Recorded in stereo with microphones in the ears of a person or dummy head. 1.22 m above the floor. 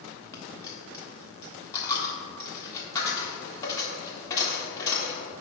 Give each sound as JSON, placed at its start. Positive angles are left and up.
{"t": 0.3, "sound": "a dropped coin", "side_deg": 20, "distance_m": 1.4}